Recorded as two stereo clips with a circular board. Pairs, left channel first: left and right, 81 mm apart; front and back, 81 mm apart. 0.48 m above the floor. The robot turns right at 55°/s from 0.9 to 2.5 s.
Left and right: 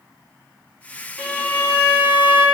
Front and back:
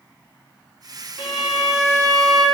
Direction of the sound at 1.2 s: 5° left.